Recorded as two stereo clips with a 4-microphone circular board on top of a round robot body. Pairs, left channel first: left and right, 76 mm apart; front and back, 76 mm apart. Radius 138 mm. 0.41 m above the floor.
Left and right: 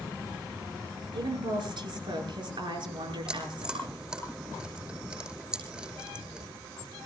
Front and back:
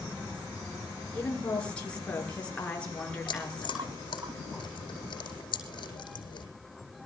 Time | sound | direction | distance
1.1 | a woman speaking | 75° right | 7.5 m
3.3 | chewing | 15° right | 8.5 m